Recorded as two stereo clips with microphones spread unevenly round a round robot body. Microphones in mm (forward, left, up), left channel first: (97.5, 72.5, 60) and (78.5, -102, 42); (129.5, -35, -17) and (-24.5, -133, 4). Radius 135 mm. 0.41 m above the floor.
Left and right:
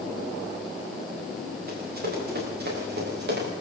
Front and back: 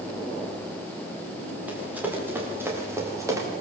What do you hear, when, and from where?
1.7 s running footsteps: 65° right, 9 m; by 3.5 s 75° right, 8 m